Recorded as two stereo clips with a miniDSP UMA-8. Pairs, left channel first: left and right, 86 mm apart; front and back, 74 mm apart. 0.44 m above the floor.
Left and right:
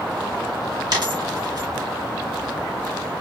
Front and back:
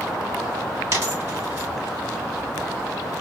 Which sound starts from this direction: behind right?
A dropped coin, at 0.9 s.